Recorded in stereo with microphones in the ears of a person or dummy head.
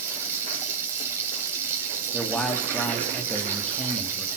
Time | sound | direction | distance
0.0 | running water | 10° right (ahead or behind) | 3.5 m
2.1 | a man speaking | 5° left (ahead or behind) | 3 m